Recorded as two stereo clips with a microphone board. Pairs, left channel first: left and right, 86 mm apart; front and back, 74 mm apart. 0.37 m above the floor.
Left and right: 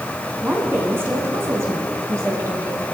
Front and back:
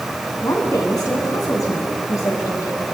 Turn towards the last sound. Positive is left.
turn(degrees=-40)